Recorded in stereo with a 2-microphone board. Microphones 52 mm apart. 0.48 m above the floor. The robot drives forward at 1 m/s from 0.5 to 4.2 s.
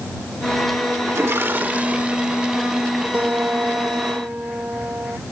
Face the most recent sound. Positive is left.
turn(degrees=-40)  # may be behind; listen again after turning